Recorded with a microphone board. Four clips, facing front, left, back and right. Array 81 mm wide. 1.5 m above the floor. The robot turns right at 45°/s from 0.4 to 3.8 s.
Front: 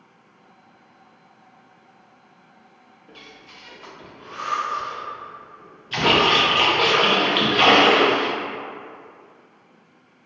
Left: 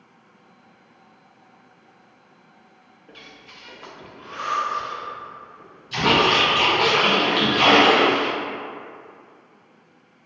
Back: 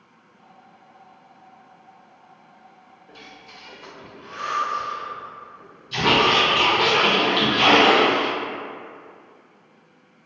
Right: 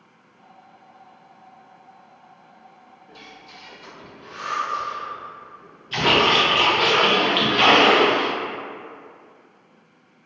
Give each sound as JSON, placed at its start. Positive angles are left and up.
{"t": 3.1, "sound": "breathing", "azimuth_deg": 55, "distance_m": 0.5}
{"t": 5.9, "sound": "a splash", "azimuth_deg": -25, "distance_m": 0.6}